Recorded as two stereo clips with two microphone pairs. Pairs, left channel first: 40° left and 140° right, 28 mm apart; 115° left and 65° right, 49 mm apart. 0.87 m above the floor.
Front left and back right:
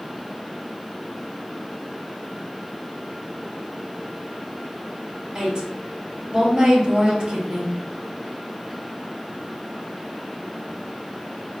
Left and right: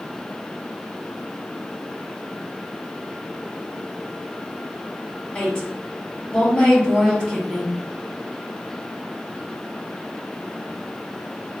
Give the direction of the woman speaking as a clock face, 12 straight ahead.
6 o'clock.